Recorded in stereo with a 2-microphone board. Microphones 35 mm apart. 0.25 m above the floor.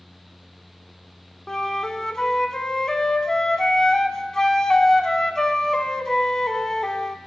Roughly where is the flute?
Centre.